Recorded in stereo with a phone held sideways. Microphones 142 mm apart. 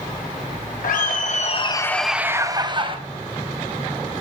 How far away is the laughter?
About 1.0 m.